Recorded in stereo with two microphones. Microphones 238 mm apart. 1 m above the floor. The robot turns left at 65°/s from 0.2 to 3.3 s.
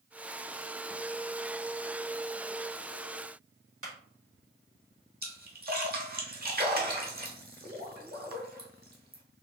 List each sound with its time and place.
3.8 s a clap: 65° right (ahead or behind), 1.6 m
5.2 s a splash: 40° right (ahead or behind), 0.9 m